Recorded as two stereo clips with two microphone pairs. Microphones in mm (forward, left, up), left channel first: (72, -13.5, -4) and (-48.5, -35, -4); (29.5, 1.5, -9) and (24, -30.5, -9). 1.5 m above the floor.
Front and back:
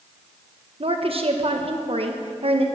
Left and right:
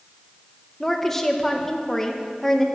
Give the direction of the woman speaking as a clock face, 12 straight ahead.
7 o'clock.